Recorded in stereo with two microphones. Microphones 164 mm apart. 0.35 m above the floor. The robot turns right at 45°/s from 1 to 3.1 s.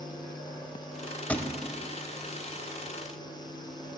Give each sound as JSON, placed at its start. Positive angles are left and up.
{"t": 1.3, "sound": "a thud", "side_deg": 10, "distance_m": 0.6}